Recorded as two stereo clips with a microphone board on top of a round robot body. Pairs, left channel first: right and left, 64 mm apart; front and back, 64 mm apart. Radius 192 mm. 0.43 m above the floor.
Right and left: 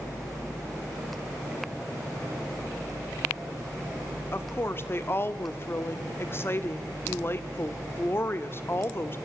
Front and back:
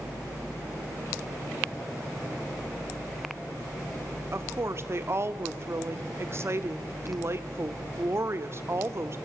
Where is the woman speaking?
140° right, 1.4 m.